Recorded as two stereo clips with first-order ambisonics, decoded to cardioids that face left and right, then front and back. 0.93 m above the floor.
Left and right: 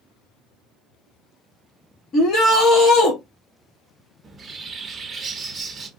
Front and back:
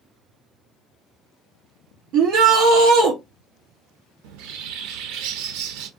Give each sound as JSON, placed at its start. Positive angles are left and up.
{"t": 2.1, "sound": "a shout", "azimuth_deg": 145, "distance_m": 1.6}
{"t": 4.2, "sound": "a bird", "azimuth_deg": -165, "distance_m": 0.6}